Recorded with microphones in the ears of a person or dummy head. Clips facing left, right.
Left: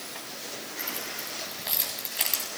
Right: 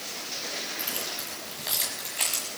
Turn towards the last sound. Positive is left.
turn(degrees=5)  # may be behind; listen again after turning